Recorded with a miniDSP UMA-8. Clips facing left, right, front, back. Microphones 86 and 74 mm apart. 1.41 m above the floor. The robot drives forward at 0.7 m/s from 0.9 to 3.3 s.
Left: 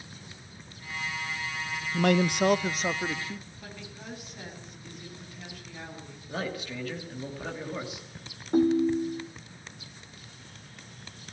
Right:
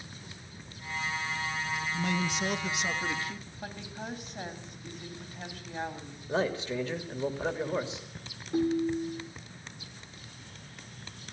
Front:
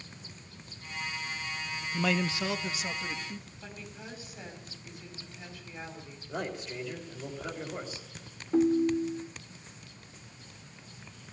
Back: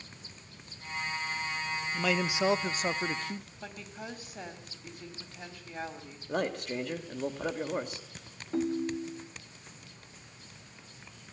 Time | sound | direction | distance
1.9 | a man speaking | 80° left | 0.5 m
3.6 | a woman speaking | 140° right | 4 m
6.3 | a man speaking | 150° right | 3 m
8.5 | a ringtone | 85° left | 0.7 m